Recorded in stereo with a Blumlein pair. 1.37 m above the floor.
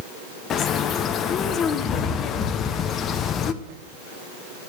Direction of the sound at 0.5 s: 30° left.